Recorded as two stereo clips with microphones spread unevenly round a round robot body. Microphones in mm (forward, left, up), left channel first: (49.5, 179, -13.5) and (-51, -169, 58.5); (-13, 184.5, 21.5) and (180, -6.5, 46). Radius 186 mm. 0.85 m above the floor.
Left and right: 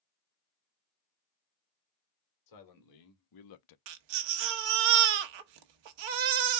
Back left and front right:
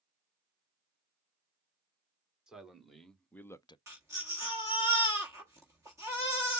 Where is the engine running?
I don't hear an engine running.